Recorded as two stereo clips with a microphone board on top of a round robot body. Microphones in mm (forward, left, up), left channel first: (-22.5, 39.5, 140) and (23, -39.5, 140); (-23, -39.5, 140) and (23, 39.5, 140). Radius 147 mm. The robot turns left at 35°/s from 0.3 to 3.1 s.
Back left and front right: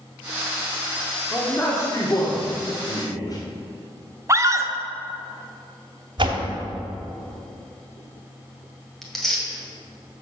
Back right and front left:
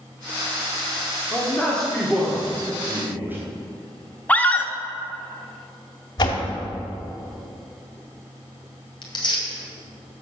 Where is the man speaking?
Straight behind, 1.6 m; by 3.4 s 115° left, 1.6 m.